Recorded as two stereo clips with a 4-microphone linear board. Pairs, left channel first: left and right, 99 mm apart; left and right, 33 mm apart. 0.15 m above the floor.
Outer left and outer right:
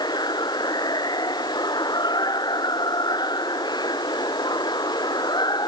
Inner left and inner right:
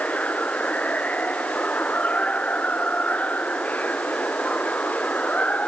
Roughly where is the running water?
Left.